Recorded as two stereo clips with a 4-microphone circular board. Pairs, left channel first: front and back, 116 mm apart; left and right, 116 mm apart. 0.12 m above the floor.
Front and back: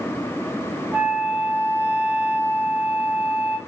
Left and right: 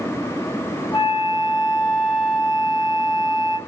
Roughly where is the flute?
Left.